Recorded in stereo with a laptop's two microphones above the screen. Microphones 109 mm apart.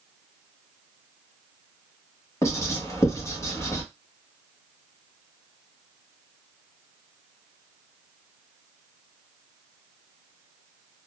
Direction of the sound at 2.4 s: 25° left (ahead or behind).